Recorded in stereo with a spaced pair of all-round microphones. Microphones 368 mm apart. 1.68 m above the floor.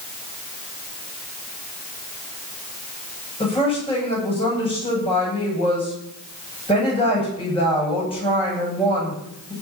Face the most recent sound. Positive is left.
turn(degrees=15)  # may be behind; listen again after turning